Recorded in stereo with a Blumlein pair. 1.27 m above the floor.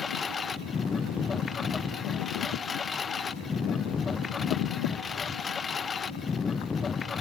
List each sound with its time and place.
0.0 s a lawn mower: 20° left